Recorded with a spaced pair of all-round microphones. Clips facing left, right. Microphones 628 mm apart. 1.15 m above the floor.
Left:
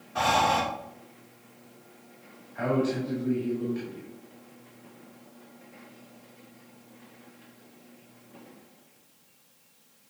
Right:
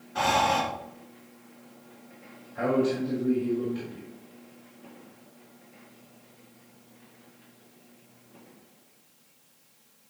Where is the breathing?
5° left (ahead or behind), 1.0 m.